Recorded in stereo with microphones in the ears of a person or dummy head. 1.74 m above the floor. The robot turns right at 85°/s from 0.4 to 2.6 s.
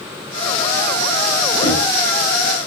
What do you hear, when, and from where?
1.6 s knocking: 35° left (ahead or behind), 6 m; by 1.8 s 15° left (ahead or behind), 6 m